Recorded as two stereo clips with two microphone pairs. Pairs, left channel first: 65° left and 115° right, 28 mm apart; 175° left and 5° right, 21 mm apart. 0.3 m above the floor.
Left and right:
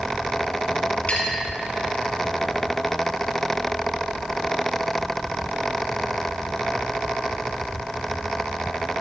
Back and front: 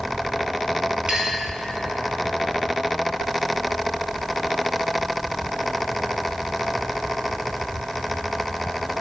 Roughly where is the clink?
Ahead.